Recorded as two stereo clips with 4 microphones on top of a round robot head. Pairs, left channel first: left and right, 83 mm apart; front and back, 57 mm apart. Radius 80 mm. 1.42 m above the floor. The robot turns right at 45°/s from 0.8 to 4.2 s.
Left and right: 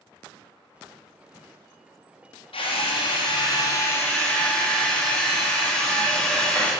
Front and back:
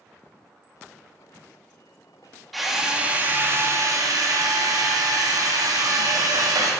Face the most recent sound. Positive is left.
turn(degrees=165)